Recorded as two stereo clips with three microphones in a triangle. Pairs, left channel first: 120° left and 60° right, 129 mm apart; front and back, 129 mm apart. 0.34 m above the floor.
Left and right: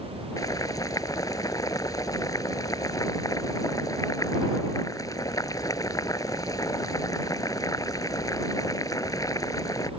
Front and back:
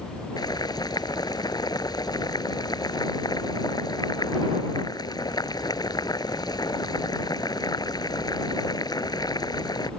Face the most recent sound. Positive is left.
turn(degrees=60)